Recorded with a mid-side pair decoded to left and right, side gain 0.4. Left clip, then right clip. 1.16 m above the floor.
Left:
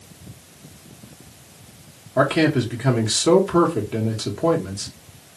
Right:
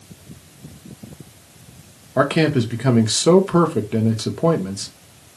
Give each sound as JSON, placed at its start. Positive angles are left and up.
{"t": 2.2, "sound": "a man speaking", "azimuth_deg": -35, "distance_m": 1.0}